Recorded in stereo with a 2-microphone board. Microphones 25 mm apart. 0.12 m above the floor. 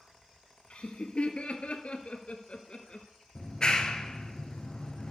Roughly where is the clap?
Left.